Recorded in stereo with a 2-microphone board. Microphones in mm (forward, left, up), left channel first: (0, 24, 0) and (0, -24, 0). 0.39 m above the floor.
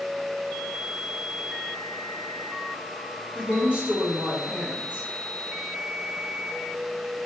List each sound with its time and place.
3.4 s a woman speaking: 25° right (ahead or behind), 1.3 m